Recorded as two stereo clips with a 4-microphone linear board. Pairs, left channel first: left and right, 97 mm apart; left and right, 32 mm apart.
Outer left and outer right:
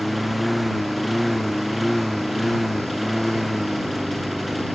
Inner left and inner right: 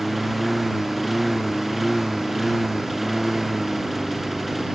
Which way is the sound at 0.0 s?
Centre (ahead or behind).